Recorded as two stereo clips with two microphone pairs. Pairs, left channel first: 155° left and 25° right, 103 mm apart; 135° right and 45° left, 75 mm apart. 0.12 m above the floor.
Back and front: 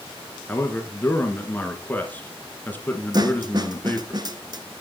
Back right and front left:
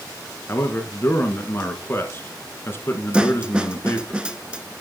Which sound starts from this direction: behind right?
A man speaking, at 0.5 s.